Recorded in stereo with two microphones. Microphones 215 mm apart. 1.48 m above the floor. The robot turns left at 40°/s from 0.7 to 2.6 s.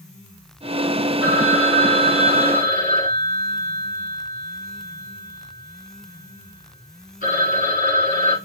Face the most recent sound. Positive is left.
turn(degrees=45)